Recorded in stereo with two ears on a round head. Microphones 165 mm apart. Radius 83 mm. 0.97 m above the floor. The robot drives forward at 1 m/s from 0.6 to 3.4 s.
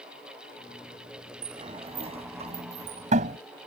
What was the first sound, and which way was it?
A sliding door, 30° right (ahead or behind).